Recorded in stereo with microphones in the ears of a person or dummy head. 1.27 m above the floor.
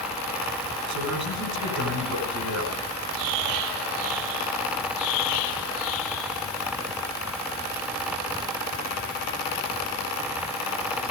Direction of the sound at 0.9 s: 70° right (ahead or behind).